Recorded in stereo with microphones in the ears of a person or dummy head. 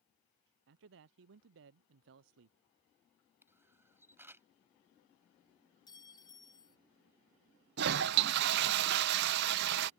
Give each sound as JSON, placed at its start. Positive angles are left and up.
{"t": 0.7, "sound": "a man speaking", "side_deg": -65}
{"t": 3.4, "sound": "a camera shutter", "side_deg": -15}
{"t": 5.9, "sound": "a clink", "side_deg": 20}
{"t": 7.8, "sound": "a toilet flushing", "side_deg": -55}